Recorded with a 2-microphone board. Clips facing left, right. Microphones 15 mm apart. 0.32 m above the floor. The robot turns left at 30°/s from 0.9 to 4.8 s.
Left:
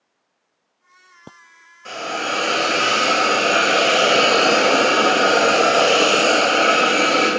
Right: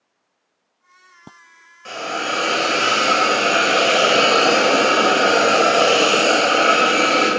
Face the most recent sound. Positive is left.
turn(degrees=180)